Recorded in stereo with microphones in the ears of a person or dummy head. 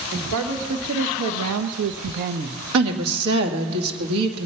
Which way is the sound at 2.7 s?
80° right.